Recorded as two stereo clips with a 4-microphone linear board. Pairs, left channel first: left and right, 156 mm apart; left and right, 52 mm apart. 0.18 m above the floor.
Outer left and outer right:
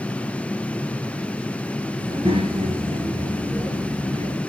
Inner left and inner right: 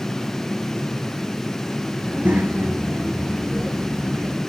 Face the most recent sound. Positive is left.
turn(degrees=-40)  # may be behind; listen again after turning